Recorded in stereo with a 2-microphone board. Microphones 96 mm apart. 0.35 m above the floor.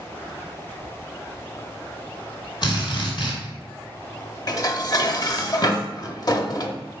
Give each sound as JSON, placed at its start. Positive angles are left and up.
{"t": 2.6, "sound": "a drill", "side_deg": 55, "distance_m": 2.5}
{"t": 4.5, "sound": "dishes clattering", "side_deg": 40, "distance_m": 0.6}